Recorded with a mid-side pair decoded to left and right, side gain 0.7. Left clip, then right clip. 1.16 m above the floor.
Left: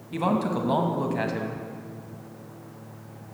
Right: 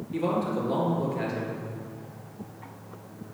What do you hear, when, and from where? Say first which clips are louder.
0.1 s a man speaking: left 2 dB; 55° left, 1.1 m